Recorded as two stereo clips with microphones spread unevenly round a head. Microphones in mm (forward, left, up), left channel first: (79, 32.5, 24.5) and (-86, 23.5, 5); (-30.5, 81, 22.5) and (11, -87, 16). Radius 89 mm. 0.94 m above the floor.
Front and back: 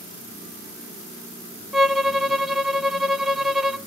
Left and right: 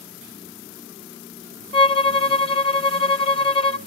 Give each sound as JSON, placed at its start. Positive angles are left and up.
{"t": 1.7, "sound": "a violin", "azimuth_deg": 110, "distance_m": 0.9}